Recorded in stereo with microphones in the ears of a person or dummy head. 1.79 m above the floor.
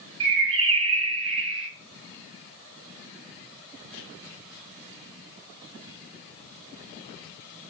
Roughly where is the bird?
Right.